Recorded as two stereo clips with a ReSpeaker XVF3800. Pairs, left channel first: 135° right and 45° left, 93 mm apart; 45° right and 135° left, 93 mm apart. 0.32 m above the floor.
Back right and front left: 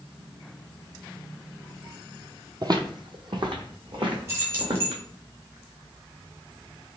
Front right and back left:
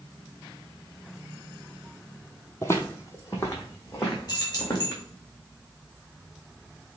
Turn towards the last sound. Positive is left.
turn(degrees=-5)